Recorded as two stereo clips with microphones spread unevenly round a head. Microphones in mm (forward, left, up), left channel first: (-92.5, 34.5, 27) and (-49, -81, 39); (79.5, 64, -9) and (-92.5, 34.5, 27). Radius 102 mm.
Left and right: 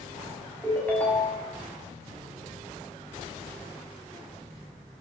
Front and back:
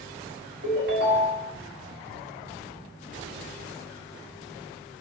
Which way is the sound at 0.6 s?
170° right.